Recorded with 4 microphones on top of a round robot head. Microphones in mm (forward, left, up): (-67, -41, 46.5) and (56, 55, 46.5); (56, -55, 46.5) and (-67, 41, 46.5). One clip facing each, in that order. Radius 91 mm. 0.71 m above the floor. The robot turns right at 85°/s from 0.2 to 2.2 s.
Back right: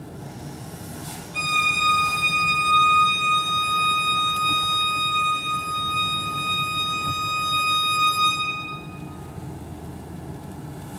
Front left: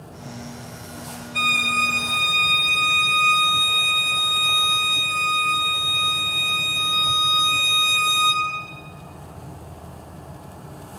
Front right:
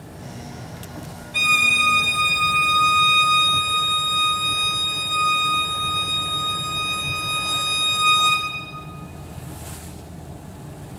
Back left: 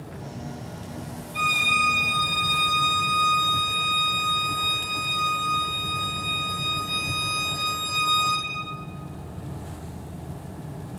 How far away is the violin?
About 1.1 m.